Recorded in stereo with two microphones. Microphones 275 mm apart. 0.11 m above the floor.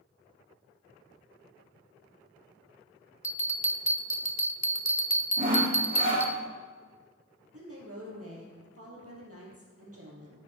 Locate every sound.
3.2 s a bell: 75° left (ahead or behind), 0.5 m
5.4 s sawing: 30° right (ahead or behind), 2.5 m
7.5 s a woman speaking: 55° right (ahead or behind), 3 m